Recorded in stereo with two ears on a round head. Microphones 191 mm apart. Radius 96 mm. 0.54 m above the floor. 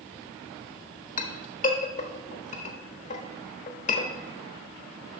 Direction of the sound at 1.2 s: 35° left (ahead or behind).